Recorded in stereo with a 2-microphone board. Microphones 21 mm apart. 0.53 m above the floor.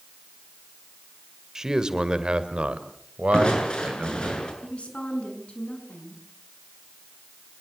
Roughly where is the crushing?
Left.